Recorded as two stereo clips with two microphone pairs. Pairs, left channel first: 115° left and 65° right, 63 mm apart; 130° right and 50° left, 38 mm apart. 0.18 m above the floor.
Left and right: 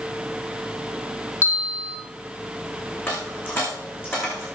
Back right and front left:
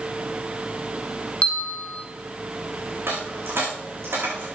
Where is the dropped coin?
60° left, 5.5 m.